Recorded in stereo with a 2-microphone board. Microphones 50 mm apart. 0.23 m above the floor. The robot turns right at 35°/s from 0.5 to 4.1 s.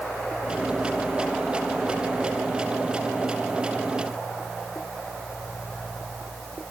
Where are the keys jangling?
I don't hear keys jangling.